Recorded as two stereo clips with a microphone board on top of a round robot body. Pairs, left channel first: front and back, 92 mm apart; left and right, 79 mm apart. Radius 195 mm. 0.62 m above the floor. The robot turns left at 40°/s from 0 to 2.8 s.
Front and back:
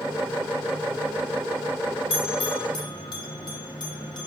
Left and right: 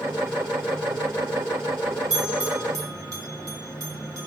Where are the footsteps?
I don't hear footsteps.